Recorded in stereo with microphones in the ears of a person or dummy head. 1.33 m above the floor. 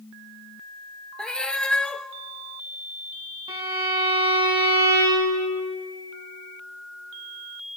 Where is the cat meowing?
10° left (ahead or behind), 0.8 m.